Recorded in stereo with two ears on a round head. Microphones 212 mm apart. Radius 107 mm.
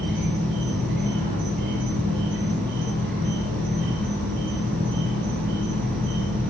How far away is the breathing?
No breathing in this recording.